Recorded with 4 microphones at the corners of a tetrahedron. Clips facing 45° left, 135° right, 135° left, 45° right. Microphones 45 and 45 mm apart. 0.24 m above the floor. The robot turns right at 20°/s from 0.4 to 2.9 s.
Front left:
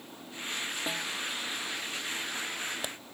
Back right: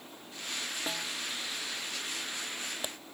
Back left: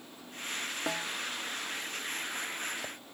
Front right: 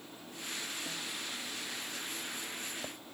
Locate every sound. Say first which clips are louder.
0.9 s a snare drum: front left 2 dB, back left 7 dB; 130° left; by 1.1 s 135° left